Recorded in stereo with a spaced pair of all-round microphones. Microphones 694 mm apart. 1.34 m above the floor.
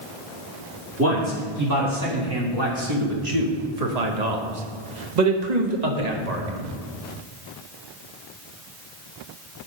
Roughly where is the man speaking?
Right.